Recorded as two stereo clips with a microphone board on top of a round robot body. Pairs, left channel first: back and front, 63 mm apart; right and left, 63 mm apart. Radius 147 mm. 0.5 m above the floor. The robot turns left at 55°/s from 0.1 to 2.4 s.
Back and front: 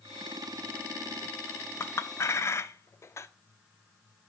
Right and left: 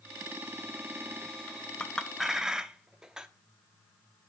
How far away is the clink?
About 0.6 m.